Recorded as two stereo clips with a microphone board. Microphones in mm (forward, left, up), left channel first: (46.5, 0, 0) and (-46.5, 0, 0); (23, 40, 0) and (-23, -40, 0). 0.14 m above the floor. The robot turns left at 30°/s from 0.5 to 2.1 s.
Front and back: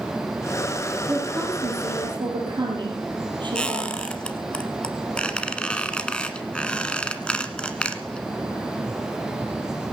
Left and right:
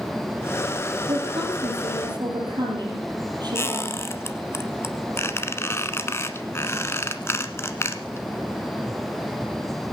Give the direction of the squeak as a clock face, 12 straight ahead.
10 o'clock.